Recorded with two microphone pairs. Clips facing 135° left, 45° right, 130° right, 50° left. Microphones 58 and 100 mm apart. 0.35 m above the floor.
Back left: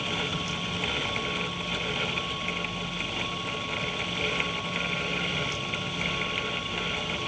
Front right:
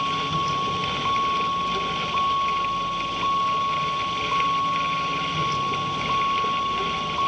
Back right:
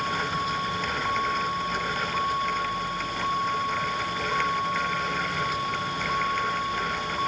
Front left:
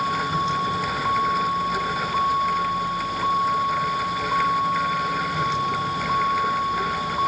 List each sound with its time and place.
0.0 s a vehicle: 10° right